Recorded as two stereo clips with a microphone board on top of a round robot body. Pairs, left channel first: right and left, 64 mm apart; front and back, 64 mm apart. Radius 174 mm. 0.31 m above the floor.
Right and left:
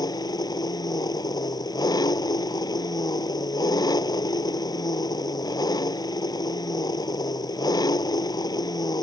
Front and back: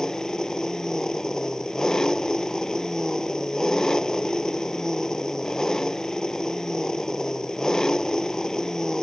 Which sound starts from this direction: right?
An engine running, at 0.0 s.